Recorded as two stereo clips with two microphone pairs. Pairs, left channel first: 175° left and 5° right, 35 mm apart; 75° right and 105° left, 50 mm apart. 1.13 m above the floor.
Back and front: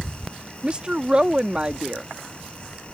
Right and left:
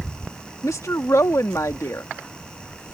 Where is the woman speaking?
65° right.